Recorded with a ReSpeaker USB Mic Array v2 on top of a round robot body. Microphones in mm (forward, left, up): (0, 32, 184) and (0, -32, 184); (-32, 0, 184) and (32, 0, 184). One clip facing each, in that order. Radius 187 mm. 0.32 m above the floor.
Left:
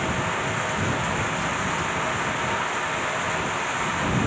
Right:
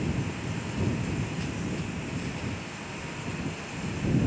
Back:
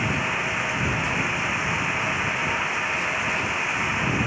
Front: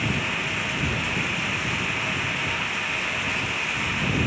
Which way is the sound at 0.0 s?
110° left.